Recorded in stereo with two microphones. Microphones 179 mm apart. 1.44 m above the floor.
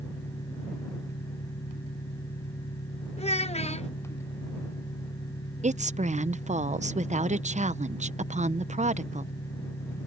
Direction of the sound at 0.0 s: 85° left.